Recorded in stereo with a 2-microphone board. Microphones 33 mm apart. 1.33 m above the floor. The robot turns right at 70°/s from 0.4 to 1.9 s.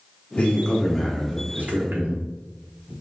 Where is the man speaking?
145° left, 1.0 m; by 2.9 s 110° right, 1.0 m.